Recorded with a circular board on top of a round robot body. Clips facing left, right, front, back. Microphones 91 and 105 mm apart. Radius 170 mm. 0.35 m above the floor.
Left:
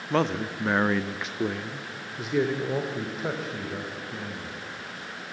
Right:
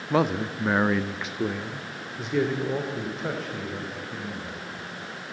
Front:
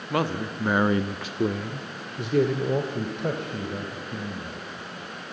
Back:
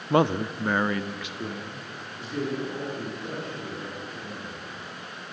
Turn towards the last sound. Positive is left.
turn(degrees=5)